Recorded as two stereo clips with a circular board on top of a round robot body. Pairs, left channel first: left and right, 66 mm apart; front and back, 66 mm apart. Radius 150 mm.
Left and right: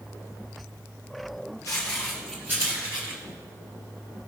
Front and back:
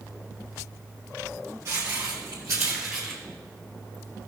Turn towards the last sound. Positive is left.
turn(degrees=-85)